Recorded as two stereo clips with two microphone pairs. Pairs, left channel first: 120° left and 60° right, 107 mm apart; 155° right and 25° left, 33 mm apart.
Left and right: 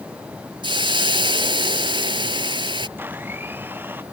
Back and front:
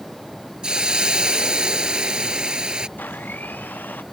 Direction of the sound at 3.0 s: 130° right.